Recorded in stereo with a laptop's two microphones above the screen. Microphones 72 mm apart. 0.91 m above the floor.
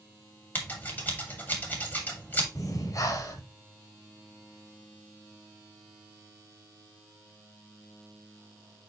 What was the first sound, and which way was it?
Scissors, 25° left (ahead or behind).